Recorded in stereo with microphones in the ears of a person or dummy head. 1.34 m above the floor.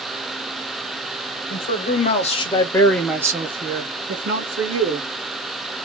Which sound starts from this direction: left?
A man speaking, at 1.5 s.